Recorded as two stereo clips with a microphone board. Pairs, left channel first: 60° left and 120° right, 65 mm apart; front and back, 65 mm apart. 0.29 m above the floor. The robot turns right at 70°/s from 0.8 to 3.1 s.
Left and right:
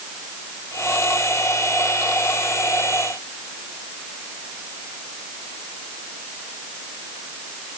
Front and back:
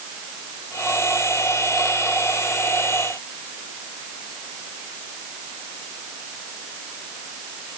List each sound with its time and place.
Only background noise.